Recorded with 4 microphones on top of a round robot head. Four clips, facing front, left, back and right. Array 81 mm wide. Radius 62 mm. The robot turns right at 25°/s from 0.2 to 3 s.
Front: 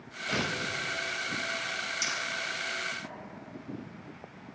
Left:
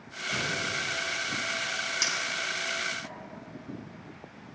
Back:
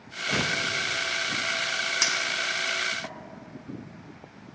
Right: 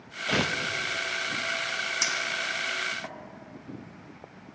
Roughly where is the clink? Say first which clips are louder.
Right 2 dB, back 5 dB; behind.